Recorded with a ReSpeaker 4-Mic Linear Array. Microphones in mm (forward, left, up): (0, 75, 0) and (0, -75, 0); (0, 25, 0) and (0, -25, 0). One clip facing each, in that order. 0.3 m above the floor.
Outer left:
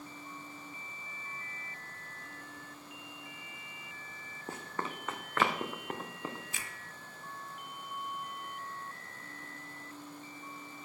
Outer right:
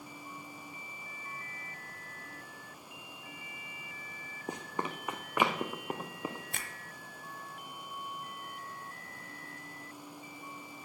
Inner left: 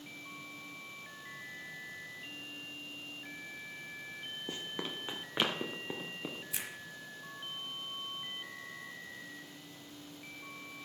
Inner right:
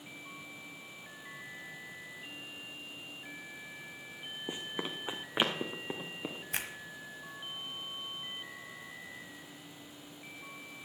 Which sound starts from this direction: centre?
Running footsteps, at 4.5 s.